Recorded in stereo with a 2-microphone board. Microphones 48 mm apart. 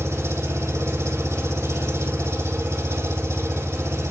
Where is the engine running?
70° right (ahead or behind), 3.5 m.